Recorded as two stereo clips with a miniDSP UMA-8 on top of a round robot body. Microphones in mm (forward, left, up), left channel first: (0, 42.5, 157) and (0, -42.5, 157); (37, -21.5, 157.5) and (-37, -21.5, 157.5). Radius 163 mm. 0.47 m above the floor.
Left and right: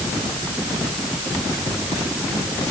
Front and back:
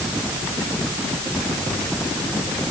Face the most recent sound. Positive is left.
No sound to turn to.